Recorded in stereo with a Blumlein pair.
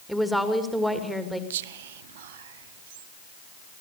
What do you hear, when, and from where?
0.1 s a woman speaking: straight ahead, 2.5 m
1.5 s whispering: 55° right, 0.9 m